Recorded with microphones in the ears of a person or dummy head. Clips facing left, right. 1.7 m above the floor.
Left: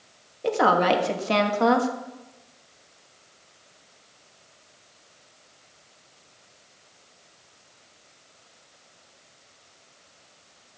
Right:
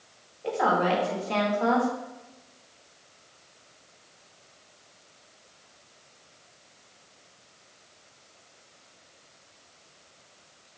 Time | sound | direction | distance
0.4 | a woman speaking | 70° left (ahead or behind) | 1.5 m